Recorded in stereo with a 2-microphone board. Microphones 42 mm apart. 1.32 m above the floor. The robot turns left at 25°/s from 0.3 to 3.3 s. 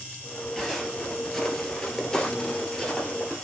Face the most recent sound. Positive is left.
turn(degrees=25)  # may be behind; listen again after turning